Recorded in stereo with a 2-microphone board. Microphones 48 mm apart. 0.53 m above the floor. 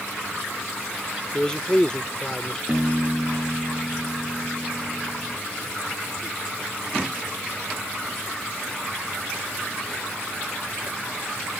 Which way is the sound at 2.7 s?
15° right (ahead or behind).